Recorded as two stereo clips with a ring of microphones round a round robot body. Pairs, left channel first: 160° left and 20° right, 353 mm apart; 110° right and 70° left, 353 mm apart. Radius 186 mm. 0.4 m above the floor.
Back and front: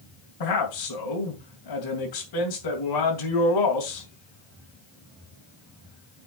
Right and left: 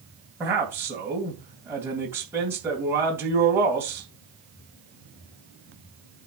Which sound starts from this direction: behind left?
A man speaking, at 0.4 s.